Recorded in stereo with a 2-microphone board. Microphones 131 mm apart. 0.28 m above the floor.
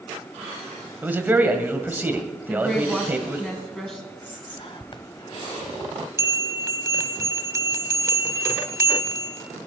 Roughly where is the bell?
Right.